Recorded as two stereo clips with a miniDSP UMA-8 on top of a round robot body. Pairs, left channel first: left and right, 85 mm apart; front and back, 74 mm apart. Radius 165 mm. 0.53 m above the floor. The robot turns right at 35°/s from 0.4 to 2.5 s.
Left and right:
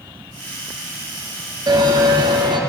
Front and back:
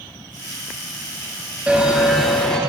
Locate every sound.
1.7 s a bell: 110° right, 1.5 m; by 2.6 s 80° right, 1.5 m